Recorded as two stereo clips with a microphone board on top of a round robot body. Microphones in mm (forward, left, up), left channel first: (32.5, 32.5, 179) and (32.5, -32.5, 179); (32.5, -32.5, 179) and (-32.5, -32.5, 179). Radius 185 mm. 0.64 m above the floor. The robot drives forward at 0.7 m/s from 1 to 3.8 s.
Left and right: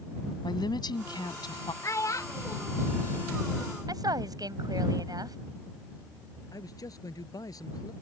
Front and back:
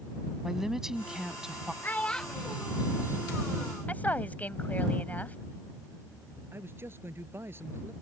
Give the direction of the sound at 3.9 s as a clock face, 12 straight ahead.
2 o'clock.